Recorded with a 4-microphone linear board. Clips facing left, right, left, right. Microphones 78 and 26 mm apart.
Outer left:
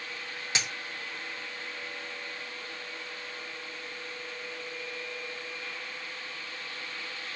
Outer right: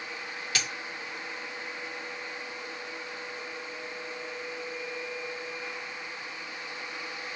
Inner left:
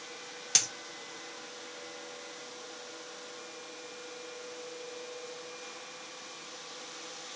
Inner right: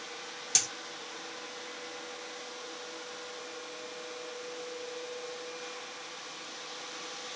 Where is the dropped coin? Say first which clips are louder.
Even, inner left 2 dB; 25° left (ahead or behind), 0.9 m.